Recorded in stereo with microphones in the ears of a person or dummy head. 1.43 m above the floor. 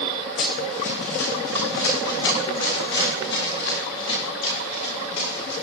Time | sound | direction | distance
0.4 | running footsteps | 65° left (ahead or behind) | 3.5 m